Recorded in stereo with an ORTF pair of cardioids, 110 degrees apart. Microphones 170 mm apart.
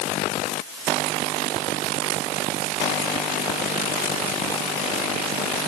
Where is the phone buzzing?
I don't hear a phone buzzing.